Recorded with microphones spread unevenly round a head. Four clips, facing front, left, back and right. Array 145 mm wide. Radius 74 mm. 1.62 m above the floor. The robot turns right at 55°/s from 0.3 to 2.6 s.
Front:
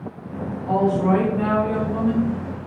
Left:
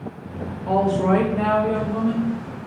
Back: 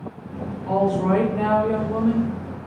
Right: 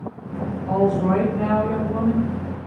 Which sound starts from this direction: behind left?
A woman speaking, at 0.7 s.